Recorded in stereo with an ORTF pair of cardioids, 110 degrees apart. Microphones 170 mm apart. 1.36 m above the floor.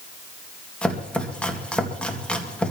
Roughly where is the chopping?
Ahead.